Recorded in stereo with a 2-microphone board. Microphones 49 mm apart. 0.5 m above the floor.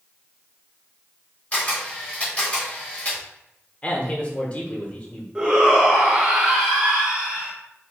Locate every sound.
1.5 s a camera shutter: 25° left (ahead or behind), 1.6 m
3.8 s a man speaking: 25° left (ahead or behind), 1.1 m
5.3 s a shout: 15° right (ahead or behind), 1.2 m